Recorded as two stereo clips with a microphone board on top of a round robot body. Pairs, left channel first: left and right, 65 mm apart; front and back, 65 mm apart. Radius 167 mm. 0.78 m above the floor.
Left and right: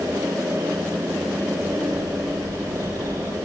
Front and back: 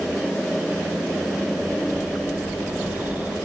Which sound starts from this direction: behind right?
A bird, at 1.7 s.